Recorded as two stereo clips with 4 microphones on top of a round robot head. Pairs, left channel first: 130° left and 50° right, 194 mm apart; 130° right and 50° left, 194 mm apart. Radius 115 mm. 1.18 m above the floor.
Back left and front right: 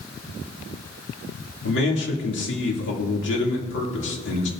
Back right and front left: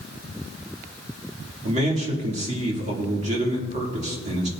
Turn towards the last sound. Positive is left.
turn(degrees=105)